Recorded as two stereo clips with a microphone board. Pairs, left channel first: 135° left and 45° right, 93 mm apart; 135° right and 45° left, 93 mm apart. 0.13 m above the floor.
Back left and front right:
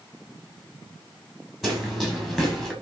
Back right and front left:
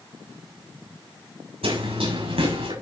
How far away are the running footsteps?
About 8.5 m.